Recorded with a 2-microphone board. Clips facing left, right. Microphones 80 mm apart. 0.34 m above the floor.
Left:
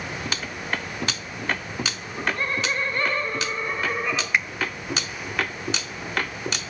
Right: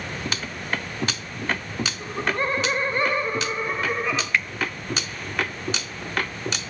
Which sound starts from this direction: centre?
A finger snap, at 4.3 s.